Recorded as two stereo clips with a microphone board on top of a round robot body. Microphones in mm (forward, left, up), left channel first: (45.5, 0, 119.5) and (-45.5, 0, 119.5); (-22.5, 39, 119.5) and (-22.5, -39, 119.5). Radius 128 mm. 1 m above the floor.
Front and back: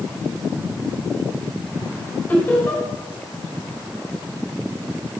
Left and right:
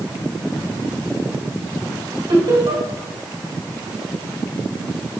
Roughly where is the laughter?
Right.